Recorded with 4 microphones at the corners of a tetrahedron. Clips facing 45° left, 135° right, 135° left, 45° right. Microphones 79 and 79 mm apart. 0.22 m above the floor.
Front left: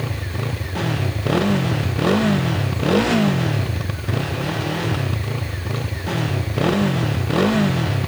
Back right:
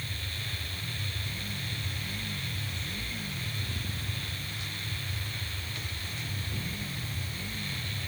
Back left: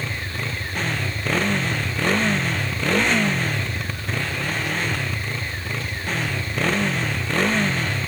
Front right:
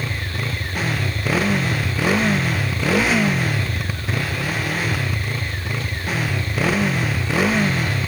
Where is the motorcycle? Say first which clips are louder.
Front left 14 dB, front right 2 dB; 40° left.